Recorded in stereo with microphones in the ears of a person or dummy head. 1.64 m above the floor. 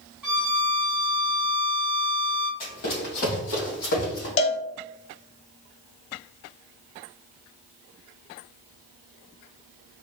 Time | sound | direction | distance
0.2 | a violin | 10° right (ahead or behind) | 0.9 m
2.6 | running footsteps | 40° left (ahead or behind) | 2 m
4.4 | a cowbell | 35° left (ahead or behind) | 0.6 m